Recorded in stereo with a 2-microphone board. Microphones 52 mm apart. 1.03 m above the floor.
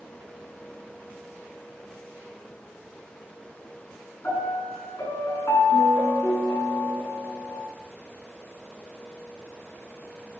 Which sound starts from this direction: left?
A piano, at 4.2 s.